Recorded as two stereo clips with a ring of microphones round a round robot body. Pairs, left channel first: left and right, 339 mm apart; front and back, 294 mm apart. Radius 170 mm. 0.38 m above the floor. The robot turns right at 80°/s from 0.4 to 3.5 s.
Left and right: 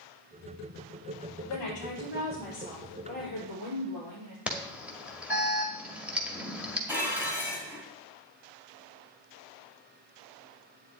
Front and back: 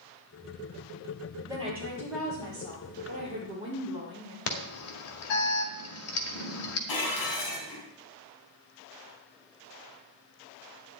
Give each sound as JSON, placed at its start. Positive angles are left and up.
{"t": 1.5, "sound": "a woman speaking", "azimuth_deg": 100, "distance_m": 7.5}
{"t": 4.5, "sound": "an alarm", "azimuth_deg": -5, "distance_m": 1.8}
{"t": 6.9, "sound": "dishes clattering", "azimuth_deg": -5, "distance_m": 3.0}